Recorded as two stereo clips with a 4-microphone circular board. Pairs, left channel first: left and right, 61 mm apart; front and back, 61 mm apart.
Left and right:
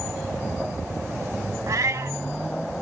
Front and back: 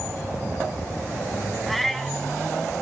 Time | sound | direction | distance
1.7 | a cat meowing | 85° right | 0.6 m